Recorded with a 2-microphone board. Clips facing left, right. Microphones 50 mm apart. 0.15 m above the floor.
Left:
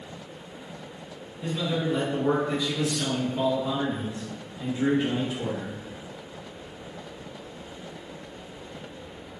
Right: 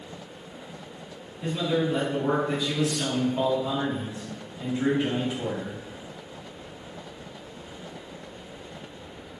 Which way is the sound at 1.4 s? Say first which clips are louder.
Right 2 dB; 10° right (ahead or behind).